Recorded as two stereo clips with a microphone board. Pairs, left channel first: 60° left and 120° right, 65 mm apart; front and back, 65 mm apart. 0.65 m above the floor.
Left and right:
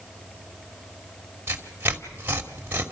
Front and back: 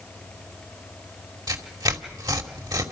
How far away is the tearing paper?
About 2.5 m.